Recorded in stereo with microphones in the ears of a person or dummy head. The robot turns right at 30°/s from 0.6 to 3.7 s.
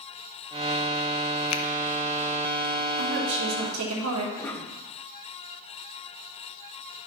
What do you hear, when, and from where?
1.5 s a finger snap: 75° left (ahead or behind), 1.0 m; by 1.6 s 80° left, 1.0 m
3.0 s a woman speaking: 55° right (ahead or behind), 2.5 m; by 4.3 s 75° right (ahead or behind), 2.5 m
4.4 s a cough: 10° left (ahead or behind), 2.5 m